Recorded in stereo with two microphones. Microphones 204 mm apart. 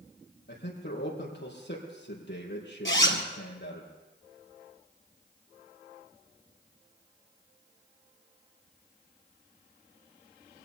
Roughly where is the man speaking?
Left.